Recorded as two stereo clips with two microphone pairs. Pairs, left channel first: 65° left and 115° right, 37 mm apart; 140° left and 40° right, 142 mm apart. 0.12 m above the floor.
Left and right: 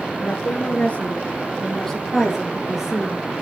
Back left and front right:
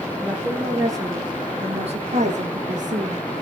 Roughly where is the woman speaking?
Ahead left.